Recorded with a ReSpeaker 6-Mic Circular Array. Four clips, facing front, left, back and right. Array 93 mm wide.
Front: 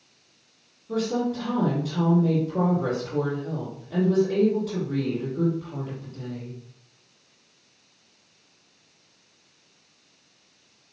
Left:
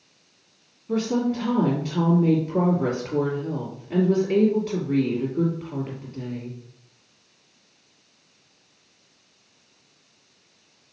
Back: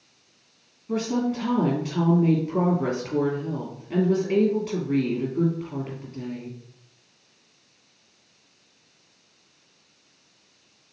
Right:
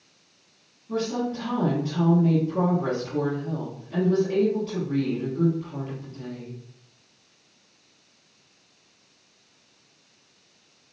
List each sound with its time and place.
0.9 s a woman speaking: 140° left, 2.5 m